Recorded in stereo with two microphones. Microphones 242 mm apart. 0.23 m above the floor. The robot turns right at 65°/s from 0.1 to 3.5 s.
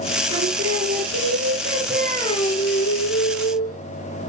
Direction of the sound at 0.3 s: 110° right.